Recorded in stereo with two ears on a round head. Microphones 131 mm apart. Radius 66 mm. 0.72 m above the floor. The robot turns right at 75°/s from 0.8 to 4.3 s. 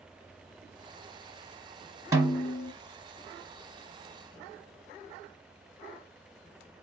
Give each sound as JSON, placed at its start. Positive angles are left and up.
{"t": 2.1, "sound": "a snare drum", "azimuth_deg": -25, "distance_m": 1.0}